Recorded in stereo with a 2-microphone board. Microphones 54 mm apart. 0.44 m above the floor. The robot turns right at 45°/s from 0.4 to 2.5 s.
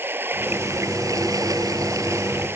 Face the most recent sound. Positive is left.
turn(degrees=-45)